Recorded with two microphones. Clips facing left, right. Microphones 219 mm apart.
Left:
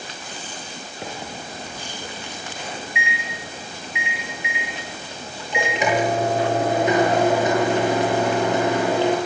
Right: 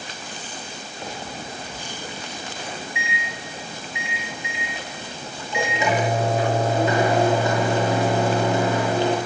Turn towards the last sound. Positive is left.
turn(degrees=20)  # may be behind; listen again after turning